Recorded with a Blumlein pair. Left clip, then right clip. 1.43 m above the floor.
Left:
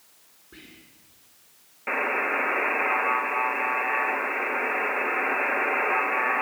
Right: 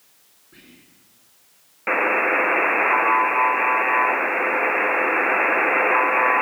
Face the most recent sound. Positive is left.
turn(degrees=-20)